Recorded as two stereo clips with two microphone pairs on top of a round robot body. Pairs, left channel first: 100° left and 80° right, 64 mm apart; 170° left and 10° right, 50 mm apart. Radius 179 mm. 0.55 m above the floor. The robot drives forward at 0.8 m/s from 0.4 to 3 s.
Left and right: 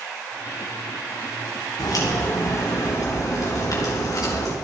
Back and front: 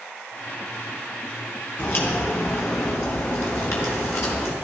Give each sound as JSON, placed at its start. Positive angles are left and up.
{"t": 1.8, "sound": "a crack", "azimuth_deg": 125, "distance_m": 3.5}